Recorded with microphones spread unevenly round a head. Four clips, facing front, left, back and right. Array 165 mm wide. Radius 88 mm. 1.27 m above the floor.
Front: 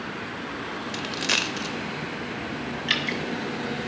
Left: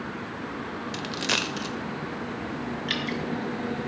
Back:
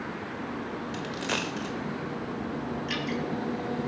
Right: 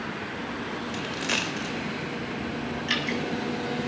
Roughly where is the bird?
I don't hear a bird.